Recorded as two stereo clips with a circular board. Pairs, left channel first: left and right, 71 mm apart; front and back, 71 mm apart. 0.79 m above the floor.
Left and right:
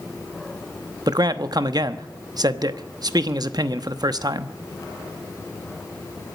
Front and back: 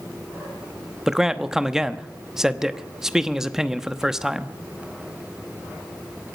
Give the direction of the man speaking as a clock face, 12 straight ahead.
3 o'clock.